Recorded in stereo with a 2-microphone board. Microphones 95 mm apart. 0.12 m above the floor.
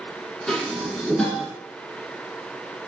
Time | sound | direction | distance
0.5 | dishes clattering | 10° left (ahead or behind) | 0.8 m